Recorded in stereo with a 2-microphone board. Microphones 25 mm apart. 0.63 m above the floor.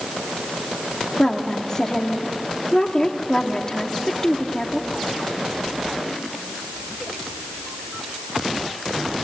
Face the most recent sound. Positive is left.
turn(degrees=30)  # may be behind; listen again after turning